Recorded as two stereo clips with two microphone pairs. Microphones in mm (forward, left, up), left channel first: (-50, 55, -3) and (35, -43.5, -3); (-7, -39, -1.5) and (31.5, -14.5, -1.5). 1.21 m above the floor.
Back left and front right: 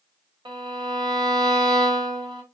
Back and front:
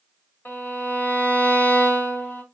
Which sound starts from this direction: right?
A violin, at 0.5 s.